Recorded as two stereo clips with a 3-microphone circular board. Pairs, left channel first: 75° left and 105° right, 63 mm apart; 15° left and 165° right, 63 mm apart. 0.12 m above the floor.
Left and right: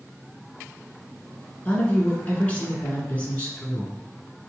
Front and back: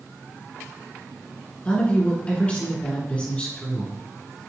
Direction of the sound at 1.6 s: 45° left.